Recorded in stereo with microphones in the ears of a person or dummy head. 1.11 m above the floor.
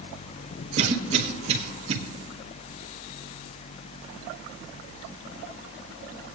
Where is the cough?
40° right (ahead or behind), 1.7 m.